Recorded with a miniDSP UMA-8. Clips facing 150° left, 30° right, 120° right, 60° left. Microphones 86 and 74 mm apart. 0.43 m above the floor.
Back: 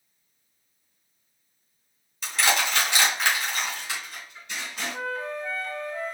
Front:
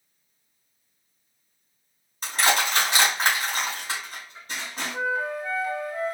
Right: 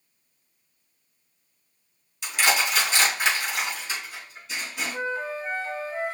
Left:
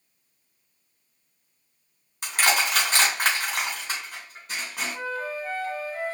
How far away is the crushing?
About 3 m.